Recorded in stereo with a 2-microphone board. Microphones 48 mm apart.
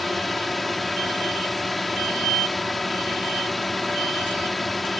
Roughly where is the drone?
Centre.